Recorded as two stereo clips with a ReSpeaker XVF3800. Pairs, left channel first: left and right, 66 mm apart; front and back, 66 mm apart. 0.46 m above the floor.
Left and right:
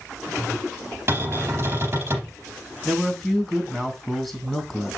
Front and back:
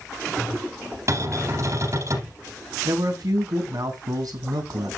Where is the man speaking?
Straight behind, 3 m.